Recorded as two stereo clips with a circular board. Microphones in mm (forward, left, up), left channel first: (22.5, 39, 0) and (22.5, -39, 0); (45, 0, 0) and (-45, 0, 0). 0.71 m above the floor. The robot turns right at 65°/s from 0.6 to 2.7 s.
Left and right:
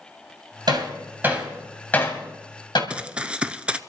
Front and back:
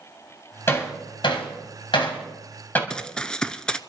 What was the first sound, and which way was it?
Hammering, 65° right.